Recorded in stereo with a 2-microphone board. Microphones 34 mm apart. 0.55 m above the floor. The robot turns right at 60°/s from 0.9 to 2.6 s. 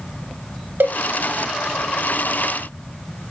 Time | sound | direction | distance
0.8 | a cowbell | 65° right (ahead or behind) | 0.6 m